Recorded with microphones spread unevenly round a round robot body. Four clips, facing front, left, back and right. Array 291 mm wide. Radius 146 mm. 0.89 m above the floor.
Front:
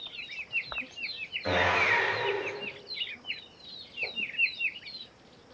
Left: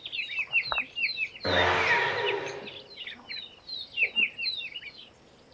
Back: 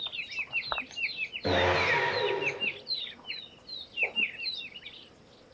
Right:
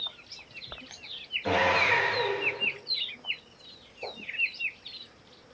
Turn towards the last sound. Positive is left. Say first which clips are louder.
# even, back 1 dB
turn(degrees=155)